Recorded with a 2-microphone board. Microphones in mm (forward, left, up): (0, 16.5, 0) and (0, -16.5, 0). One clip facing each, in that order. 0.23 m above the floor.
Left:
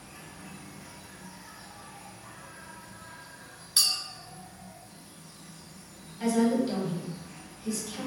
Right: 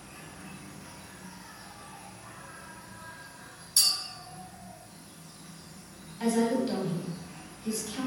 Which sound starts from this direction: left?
A clink, at 3.8 s.